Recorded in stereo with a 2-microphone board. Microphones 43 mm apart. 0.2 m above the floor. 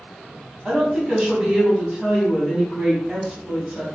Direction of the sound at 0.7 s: 10° right (ahead or behind).